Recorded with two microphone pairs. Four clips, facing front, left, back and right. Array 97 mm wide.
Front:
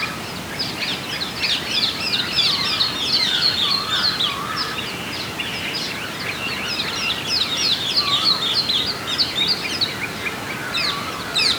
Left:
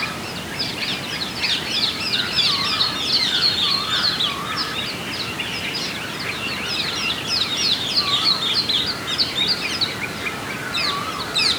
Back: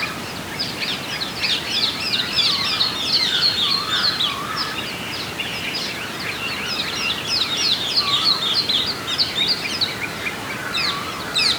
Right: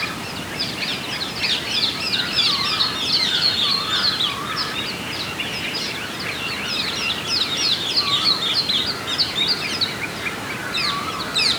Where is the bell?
I don't hear a bell.